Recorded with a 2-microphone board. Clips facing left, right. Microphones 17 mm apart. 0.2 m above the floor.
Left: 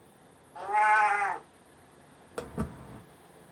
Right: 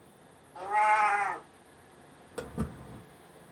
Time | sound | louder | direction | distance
0.6 | a cat meowing | left 1 dB | centre (ahead or behind) | 1.7 m
2.4 | footsteps | left 1 dB | 25° left (ahead or behind) | 0.8 m